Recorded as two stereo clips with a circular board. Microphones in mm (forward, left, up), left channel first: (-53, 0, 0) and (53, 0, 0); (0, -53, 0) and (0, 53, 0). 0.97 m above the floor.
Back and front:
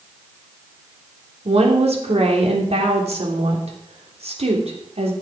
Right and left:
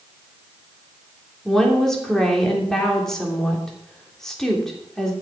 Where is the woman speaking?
5° right, 3 m.